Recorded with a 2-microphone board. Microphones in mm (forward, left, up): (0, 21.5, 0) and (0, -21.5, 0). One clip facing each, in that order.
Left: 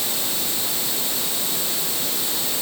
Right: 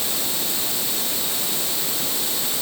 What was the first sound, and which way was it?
Only background noise.